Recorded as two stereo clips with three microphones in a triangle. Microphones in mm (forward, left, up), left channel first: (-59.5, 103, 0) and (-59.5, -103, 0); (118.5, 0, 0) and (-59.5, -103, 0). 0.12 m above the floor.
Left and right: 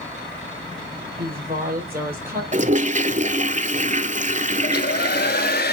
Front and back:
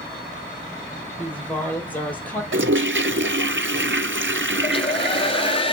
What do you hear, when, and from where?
1.2 s a woman speaking: 55° right, 3.5 m
2.5 s a toilet flushing: 145° right, 0.6 m
4.6 s a hair dryer: 80° left, 0.7 m